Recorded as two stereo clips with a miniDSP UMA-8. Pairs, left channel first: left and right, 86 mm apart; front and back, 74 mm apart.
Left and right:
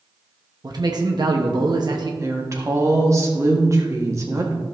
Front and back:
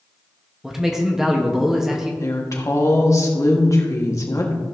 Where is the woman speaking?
40° right, 1.4 m.